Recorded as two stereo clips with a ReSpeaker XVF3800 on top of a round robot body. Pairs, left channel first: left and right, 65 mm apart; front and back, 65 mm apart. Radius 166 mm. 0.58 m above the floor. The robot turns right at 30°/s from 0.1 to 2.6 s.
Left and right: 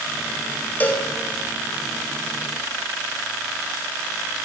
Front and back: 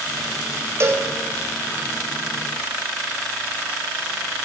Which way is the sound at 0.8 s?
140° left.